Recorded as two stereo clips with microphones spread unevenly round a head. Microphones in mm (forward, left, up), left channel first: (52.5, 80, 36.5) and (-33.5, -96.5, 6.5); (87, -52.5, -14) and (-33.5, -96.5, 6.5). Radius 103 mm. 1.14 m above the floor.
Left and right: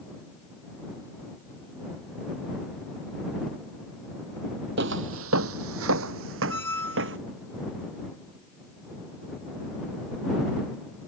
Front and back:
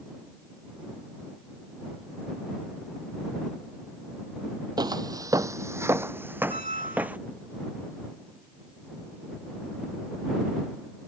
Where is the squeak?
140° left.